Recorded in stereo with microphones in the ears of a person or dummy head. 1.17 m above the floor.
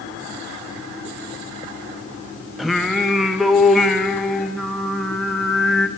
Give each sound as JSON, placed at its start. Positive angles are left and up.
{"t": 2.6, "sound": "singing", "side_deg": 0, "distance_m": 0.7}